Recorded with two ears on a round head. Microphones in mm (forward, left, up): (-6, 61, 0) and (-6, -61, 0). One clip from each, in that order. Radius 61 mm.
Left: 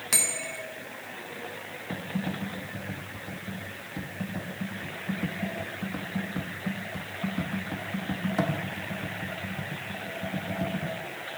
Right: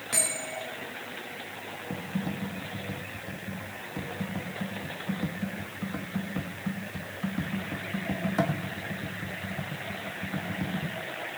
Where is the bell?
80° left, 3 m.